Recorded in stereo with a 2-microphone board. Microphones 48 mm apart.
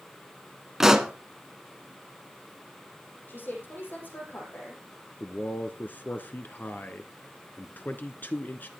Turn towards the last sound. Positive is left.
turn(degrees=40)  # may be behind; listen again after turning